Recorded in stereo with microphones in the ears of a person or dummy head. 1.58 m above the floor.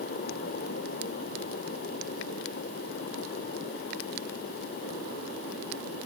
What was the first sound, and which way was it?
Only background noise.